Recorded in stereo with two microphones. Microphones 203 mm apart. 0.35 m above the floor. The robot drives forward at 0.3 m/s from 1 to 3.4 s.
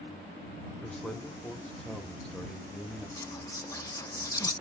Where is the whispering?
15° left (ahead or behind), 1.2 m; by 4.5 s 20° left (ahead or behind), 1.2 m.